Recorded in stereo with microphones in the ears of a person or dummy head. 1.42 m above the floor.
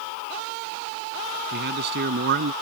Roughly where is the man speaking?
Right.